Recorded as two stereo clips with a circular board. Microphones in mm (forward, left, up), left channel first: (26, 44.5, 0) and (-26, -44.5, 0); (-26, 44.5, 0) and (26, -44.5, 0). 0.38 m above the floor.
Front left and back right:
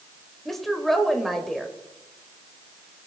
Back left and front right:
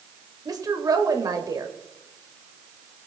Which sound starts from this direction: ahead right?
A woman speaking, at 0.5 s.